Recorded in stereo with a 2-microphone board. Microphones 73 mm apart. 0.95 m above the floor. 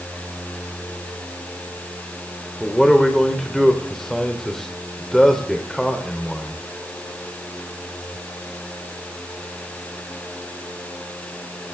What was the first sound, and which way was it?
A man speaking, 5° left (ahead or behind).